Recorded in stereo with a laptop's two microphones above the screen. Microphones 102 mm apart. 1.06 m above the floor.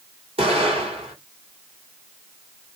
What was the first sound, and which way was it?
An explosion, 75° right (ahead or behind).